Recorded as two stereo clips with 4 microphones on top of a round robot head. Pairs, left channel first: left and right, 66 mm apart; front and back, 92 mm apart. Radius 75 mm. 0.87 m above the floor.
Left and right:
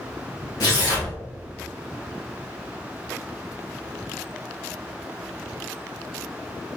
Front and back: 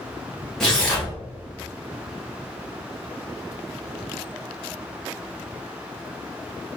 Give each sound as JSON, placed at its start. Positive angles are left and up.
{"t": 0.6, "sound": "tearing paper", "azimuth_deg": 80, "distance_m": 1.7}